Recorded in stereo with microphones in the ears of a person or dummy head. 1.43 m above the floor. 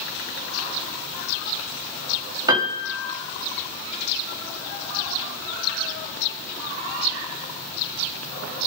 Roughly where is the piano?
Centre.